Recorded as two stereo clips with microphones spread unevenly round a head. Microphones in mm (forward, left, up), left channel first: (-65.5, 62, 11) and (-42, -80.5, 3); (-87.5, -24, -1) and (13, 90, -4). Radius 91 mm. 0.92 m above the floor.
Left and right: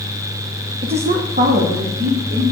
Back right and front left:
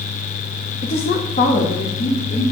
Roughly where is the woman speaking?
Right.